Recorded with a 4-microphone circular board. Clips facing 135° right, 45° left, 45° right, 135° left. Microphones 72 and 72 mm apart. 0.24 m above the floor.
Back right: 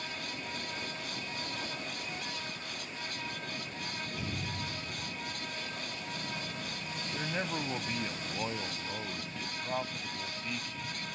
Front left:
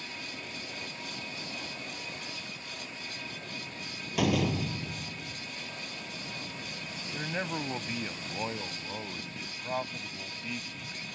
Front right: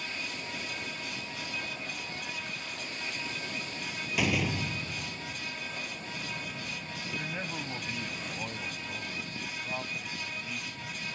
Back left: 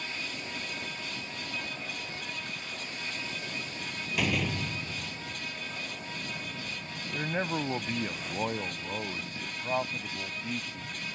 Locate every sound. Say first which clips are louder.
4.2 s a door slam: front left 16 dB, front right 1 dB; 40° left
7.1 s a man speaking: front left 1 dB, back left 7 dB; 120° left